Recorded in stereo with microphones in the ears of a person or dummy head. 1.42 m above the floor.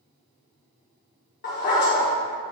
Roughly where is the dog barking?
Left.